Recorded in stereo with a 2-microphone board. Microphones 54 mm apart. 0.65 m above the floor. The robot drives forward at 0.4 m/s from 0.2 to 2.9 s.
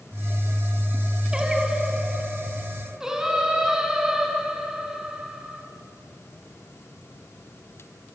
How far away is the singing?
About 1.8 m.